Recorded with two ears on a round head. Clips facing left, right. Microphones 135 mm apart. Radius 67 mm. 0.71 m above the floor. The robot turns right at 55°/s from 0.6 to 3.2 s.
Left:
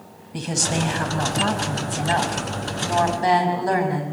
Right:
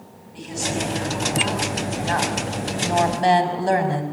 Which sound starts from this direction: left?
A woman speaking, at 0.3 s.